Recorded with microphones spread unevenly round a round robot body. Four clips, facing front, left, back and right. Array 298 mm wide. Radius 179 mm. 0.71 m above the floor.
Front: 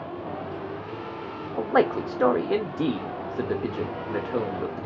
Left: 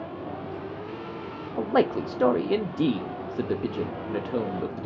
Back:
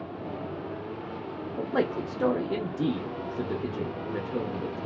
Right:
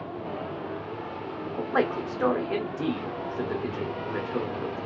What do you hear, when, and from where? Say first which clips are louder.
1.6 s a man speaking: left 3 dB, front 6 dB; 40° left, 0.7 m